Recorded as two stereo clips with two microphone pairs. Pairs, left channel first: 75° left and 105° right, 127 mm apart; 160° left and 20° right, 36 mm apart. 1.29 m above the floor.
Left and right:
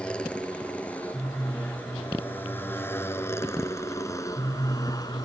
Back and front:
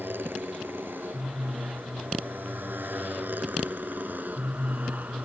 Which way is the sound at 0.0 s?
10° right.